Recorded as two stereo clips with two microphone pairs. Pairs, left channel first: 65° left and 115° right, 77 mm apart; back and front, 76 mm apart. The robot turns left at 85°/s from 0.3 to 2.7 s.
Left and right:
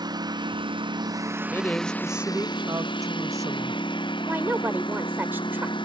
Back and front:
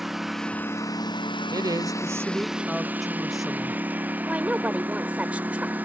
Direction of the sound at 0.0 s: 85° right.